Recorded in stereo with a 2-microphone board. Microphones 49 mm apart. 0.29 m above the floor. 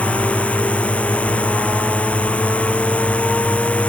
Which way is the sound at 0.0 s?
25° left (ahead or behind).